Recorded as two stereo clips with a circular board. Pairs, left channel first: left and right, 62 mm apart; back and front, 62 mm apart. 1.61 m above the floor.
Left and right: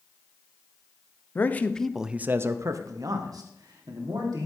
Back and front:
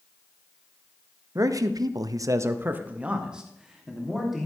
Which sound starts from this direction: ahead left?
A man speaking, at 1.4 s.